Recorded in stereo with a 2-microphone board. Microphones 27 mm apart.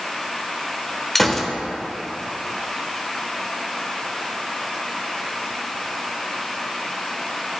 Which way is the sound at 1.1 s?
10° left (ahead or behind).